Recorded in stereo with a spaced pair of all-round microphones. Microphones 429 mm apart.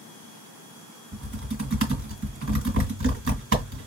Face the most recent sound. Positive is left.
turn(degrees=-30)  # may be behind; listen again after turning